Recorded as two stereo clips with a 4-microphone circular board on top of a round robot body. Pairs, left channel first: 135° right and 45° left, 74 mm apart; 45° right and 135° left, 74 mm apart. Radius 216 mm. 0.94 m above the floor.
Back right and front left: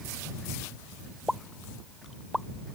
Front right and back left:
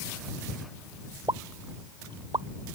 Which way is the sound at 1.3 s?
135° left.